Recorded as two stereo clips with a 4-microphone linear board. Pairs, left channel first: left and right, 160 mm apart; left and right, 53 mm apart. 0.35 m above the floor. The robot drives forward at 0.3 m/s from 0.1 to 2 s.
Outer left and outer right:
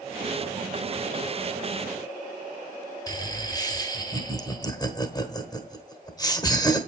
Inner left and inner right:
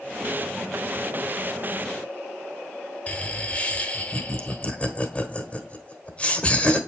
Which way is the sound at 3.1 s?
25° left (ahead or behind).